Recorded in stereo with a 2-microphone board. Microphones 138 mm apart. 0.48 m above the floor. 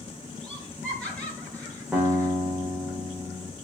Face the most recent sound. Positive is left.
turn(degrees=-5)  # may be behind; listen again after turning